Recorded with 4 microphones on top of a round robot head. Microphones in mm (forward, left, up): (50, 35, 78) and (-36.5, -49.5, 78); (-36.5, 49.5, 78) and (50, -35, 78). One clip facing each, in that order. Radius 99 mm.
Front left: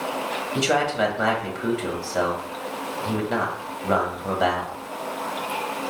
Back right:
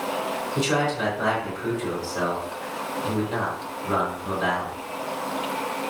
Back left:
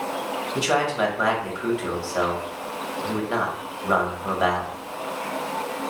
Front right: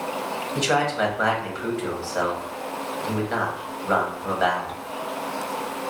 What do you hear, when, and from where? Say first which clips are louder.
0.6 s a man speaking: front left 3 dB, even; 55° left, 1.6 m